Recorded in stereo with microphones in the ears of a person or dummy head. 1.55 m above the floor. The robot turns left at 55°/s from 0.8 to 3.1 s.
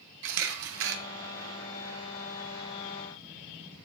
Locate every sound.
0.2 s a camera shutter: 60° right (ahead or behind), 1.0 m; by 1.0 s 50° right (ahead or behind), 1.0 m